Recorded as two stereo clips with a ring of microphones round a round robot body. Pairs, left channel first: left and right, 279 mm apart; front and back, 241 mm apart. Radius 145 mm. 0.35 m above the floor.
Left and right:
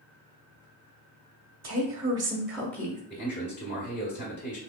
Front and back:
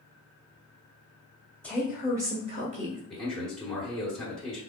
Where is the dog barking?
I don't hear a dog barking.